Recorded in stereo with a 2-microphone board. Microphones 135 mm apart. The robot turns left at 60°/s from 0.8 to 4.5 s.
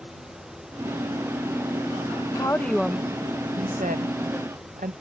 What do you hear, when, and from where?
2.4 s a woman speaking: 25° left (ahead or behind); by 4.9 s 75° right (ahead or behind)